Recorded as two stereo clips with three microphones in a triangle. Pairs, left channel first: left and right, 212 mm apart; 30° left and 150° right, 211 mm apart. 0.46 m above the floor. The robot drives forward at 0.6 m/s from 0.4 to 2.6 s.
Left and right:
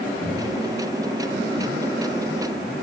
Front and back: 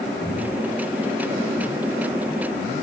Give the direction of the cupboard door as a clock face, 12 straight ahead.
2 o'clock.